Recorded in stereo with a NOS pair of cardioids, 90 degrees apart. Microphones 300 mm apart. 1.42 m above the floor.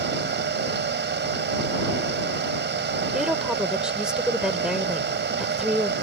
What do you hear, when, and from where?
0.0 s a fan: 40° right
3.1 s a woman speaking: straight ahead